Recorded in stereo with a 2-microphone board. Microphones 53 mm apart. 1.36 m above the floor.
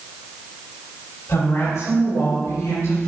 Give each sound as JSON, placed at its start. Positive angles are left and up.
{"t": 1.3, "sound": "a woman speaking", "side_deg": 80, "distance_m": 3.5}